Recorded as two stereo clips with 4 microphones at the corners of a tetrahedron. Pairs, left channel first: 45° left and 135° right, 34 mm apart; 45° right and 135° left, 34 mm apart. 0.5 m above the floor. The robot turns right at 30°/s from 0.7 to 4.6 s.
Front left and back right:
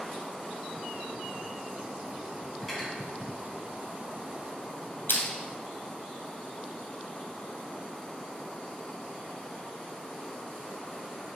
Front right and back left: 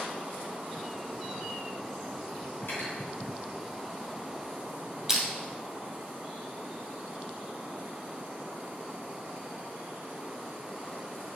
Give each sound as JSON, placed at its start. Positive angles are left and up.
{"t": 2.6, "sound": "cutlery clinking", "azimuth_deg": -45, "distance_m": 3.0}
{"t": 5.1, "sound": "crushing", "azimuth_deg": 55, "distance_m": 1.9}